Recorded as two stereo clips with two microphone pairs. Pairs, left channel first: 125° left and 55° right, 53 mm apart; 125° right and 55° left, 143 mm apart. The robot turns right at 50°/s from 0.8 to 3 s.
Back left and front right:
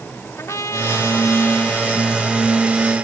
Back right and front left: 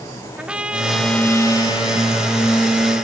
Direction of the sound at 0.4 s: 135° left.